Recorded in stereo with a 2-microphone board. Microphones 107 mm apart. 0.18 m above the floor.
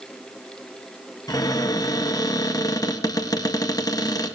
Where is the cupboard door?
35° left (ahead or behind), 1.8 m.